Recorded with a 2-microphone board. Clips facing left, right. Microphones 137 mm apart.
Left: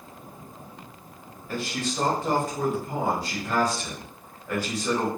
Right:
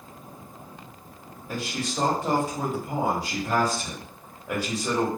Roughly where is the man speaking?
Centre.